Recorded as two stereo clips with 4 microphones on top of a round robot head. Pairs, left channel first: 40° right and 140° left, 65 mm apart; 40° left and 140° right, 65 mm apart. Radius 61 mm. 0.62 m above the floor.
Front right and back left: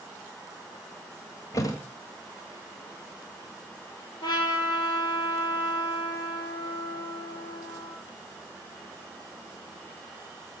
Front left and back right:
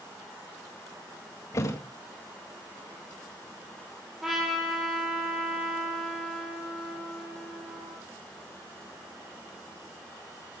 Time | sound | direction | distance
1.5 | a thud | 5° right | 1.8 m
4.2 | a trumpet | 55° right | 4.5 m